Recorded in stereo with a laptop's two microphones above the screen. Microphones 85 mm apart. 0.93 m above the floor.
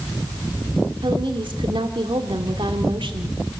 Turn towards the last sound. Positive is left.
turn(degrees=-80)